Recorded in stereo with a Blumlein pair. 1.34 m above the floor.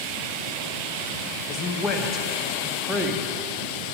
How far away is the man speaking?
About 1.8 m.